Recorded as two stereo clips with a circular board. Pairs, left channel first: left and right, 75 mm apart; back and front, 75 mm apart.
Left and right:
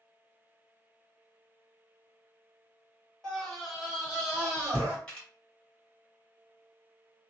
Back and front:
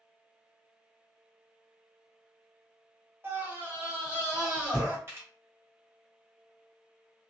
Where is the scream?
15° left, 1.3 m; by 5.0 s 80° right, 1.3 m.